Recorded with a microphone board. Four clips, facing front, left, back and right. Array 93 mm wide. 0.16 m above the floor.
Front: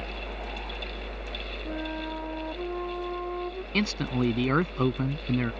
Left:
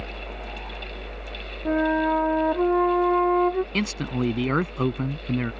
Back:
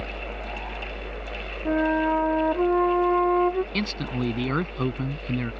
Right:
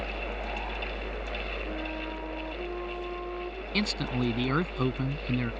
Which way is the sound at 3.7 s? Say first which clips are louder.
Left 3 dB, front 1 dB; 65° left.